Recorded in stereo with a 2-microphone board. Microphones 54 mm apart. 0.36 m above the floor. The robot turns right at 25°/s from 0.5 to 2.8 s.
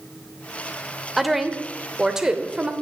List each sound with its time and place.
1.2 s a woman speaking: centre (ahead or behind), 0.9 m; by 2.7 s 15° right (ahead or behind), 0.9 m